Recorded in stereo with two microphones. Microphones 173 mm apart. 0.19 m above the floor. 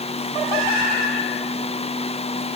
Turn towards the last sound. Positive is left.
No sound to turn to.